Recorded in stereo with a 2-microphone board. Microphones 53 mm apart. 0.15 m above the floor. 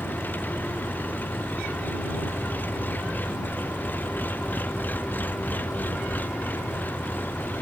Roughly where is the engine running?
Left.